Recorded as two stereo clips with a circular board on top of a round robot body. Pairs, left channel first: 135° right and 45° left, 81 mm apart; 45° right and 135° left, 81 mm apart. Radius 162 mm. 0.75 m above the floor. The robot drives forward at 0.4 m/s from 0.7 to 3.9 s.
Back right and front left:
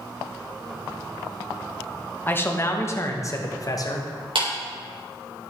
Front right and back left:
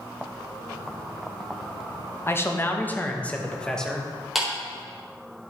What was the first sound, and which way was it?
A man speaking, 85° right.